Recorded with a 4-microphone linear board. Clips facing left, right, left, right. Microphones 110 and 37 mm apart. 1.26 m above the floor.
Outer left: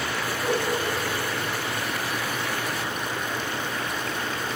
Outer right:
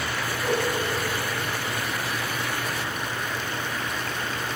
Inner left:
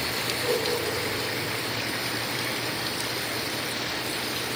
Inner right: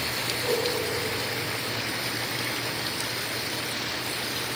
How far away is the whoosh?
About 3 m.